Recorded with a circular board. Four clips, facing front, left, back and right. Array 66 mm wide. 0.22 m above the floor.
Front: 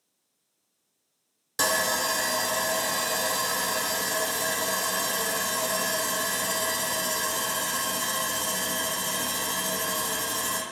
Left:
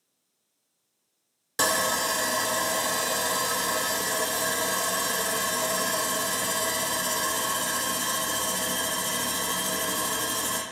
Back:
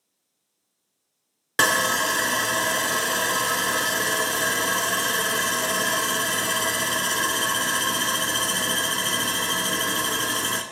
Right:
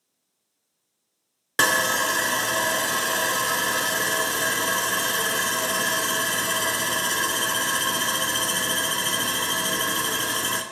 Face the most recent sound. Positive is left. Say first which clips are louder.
# right 4 dB, back 5 dB
turn(degrees=-140)